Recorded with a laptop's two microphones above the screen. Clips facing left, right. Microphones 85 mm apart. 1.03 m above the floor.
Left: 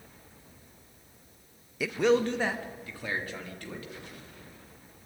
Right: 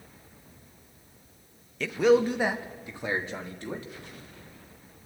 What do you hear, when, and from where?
1.8 s a man speaking: 10° left (ahead or behind), 0.7 m; by 3.9 s 25° right (ahead or behind), 2.5 m